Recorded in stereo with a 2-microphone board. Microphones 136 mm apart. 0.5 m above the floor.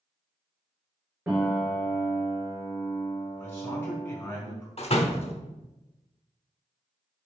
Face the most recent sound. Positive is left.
turn(degrees=50)  # may be behind; listen again after turning